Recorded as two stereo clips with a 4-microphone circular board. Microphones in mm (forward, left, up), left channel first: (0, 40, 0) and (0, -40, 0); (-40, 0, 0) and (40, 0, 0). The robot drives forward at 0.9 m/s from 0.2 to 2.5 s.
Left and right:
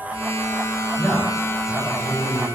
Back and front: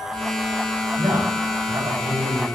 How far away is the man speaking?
About 5.5 m.